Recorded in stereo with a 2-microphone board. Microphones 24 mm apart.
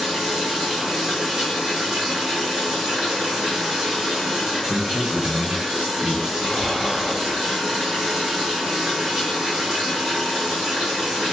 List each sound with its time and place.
0.0 s running water: 30° right (ahead or behind), 1.5 m
4.7 s a man speaking: 35° left (ahead or behind), 1.0 m
6.4 s breathing: centre (ahead or behind), 1.9 m